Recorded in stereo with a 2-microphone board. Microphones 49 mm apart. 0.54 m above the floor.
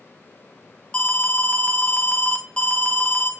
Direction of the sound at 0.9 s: 20° left (ahead or behind).